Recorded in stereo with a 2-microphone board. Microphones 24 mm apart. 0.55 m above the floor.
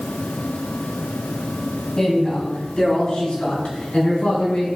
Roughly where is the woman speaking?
Left.